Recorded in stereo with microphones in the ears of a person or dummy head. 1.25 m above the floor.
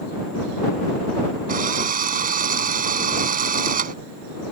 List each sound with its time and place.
1.5 s a drill: 35° right (ahead or behind)